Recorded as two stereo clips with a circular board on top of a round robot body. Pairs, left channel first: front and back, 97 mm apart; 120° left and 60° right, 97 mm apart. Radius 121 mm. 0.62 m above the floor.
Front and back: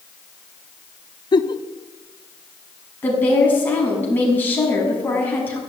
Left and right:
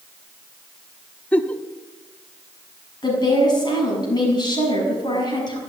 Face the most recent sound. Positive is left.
turn(degrees=75)